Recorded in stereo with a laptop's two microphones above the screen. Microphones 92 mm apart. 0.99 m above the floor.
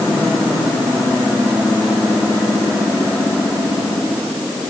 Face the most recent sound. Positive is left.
No sound to turn to.